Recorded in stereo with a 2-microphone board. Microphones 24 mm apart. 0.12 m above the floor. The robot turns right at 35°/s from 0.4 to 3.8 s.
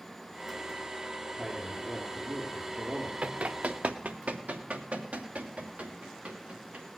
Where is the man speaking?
Straight behind, 2.5 m; by 3.1 s 120° right, 2.5 m.